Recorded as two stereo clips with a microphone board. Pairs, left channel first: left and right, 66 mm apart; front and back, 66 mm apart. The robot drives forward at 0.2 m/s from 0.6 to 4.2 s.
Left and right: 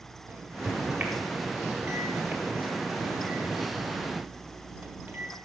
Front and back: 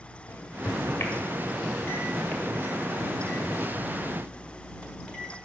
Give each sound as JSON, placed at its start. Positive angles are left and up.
{"t": 0.3, "sound": "a microwave", "azimuth_deg": -40, "distance_m": 1.4}